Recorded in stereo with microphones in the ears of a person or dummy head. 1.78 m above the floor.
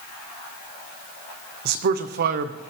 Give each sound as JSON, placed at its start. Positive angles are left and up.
{"t": 1.6, "sound": "a man speaking", "side_deg": -60, "distance_m": 0.9}